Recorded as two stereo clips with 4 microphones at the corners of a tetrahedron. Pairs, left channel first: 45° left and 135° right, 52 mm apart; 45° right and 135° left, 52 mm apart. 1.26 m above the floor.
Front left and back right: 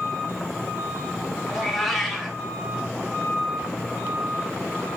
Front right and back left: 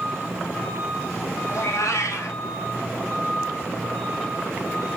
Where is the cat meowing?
45° right, 3 m.